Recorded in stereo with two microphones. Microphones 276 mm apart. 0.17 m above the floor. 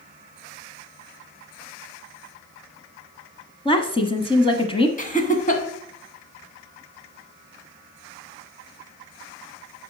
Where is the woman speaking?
20° left (ahead or behind), 1.1 m.